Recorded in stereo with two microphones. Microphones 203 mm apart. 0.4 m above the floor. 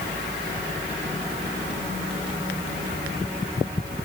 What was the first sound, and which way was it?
Only background noise.